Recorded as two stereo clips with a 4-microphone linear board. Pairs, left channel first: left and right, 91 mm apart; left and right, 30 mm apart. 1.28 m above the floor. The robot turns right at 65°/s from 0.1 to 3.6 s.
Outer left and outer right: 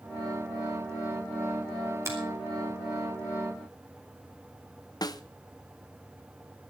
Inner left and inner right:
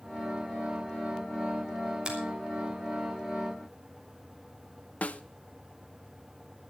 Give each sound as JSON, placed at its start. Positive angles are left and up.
{"t": 2.0, "sound": "a finger snap", "side_deg": -30, "distance_m": 4.5}
{"t": 5.0, "sound": "a snare drum", "side_deg": 45, "distance_m": 0.8}